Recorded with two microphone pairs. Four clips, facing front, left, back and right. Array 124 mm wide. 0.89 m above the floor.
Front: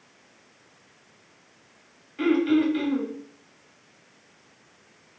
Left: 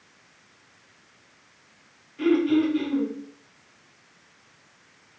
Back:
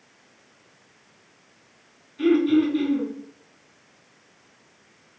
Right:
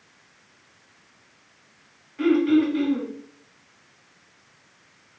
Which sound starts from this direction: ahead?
Throat clearing, at 2.2 s.